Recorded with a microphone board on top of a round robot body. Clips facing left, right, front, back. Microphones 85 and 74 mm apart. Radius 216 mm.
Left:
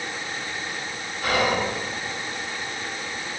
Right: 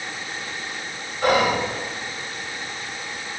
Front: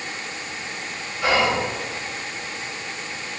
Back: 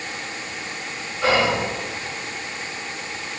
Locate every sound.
1.2 s whispering: 120° right, 2.5 m